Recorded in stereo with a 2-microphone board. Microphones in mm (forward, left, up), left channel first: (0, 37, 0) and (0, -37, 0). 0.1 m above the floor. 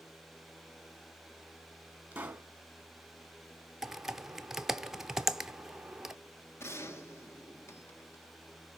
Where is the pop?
20° right (ahead or behind), 1.6 m.